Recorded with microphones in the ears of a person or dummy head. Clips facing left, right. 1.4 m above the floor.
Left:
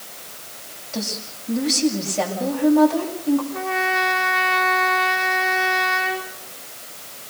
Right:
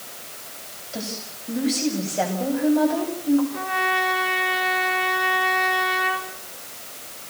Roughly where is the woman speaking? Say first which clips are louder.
Left 3 dB; centre.